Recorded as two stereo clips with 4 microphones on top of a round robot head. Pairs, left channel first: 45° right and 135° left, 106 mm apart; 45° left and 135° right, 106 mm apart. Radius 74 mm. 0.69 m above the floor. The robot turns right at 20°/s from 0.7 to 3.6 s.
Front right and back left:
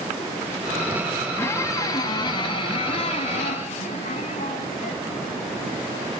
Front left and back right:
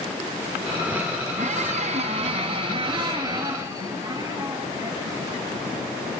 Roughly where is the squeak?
Behind right.